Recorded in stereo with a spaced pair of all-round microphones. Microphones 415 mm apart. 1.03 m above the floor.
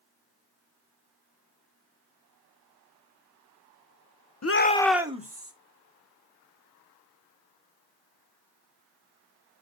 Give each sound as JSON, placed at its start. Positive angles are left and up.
{"t": 4.4, "sound": "a shout", "side_deg": 40, "distance_m": 0.6}